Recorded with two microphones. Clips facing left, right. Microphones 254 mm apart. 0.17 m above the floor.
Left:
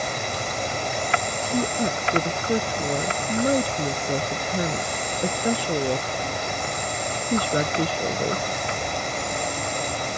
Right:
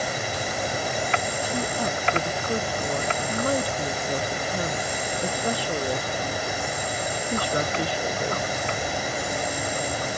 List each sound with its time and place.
0.0 s an insect: 5° right (ahead or behind)
1.4 s a woman speaking: 20° left (ahead or behind)